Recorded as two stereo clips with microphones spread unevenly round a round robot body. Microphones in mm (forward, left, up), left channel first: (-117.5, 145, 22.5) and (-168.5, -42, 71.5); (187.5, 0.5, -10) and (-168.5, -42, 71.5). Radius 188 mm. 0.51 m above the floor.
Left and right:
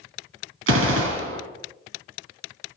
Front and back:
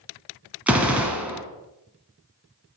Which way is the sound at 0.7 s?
90° right.